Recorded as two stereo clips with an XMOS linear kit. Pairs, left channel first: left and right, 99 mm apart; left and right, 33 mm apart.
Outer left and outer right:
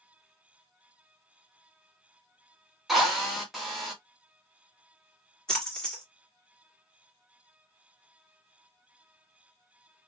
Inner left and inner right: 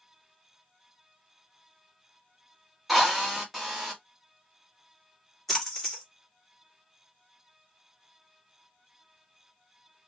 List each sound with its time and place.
2.9 s a drill: centre (ahead or behind), 1.3 m
5.5 s a splash: 5° left (ahead or behind), 1.6 m